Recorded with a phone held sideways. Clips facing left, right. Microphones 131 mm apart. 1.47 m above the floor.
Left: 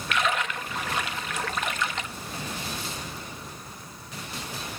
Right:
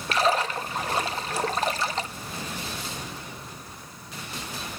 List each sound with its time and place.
0.1 s a splash: 35° right (ahead or behind), 0.7 m